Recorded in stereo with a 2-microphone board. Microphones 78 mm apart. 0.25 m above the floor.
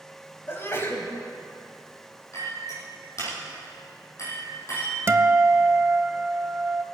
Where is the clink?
40° left (ahead or behind), 5 m.